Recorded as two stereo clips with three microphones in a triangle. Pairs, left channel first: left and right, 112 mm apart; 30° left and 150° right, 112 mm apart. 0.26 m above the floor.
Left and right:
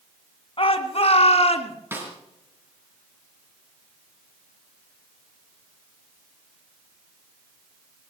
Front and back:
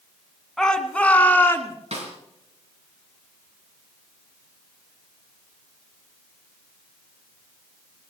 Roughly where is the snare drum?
Behind.